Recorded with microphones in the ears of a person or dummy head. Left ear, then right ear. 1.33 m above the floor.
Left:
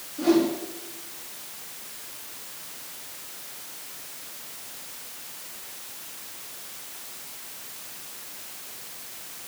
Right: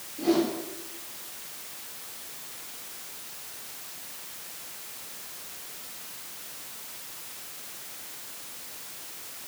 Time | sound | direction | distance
0.2 | a whoosh | 60° left (ahead or behind) | 4 m